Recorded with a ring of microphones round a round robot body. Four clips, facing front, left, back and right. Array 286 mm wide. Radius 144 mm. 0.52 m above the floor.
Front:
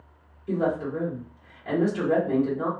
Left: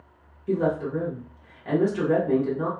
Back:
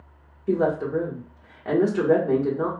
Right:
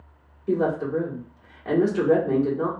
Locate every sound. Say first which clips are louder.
0.5 s a woman speaking: right 1 dB, back 3 dB; 155° right, 1.3 m